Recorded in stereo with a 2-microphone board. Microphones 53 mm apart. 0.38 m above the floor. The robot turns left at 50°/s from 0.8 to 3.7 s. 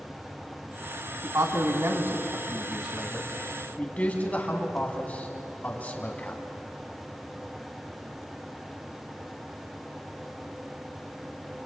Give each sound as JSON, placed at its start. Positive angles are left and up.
{"t": 1.2, "sound": "a man speaking", "side_deg": -70, "distance_m": 2.5}